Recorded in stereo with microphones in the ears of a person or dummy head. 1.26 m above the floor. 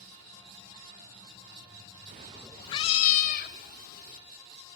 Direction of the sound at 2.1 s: 35° right (ahead or behind).